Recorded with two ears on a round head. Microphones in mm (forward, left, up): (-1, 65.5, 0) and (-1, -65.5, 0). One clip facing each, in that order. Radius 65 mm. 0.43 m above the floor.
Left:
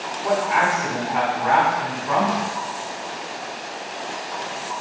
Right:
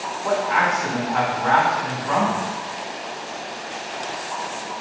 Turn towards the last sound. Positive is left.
turn(degrees=10)  # may be behind; listen again after turning